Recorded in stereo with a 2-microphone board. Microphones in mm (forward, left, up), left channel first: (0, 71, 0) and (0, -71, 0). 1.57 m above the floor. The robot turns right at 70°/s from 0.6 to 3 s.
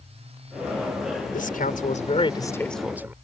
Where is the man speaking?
75° left; by 3.1 s 165° right.